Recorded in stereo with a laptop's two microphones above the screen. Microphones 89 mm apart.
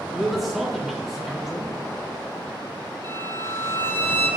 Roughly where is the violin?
Right.